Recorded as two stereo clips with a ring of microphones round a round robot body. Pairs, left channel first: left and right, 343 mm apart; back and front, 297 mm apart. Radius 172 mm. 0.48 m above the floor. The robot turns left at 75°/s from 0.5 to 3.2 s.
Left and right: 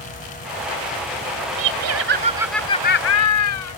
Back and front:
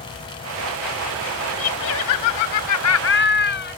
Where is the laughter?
110° right; by 3.8 s 130° left.